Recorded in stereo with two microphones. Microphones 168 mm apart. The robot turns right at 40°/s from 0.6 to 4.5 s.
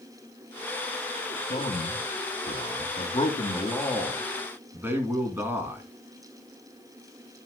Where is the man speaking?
75° left, 2.5 m; by 5.8 s 165° right, 2.5 m.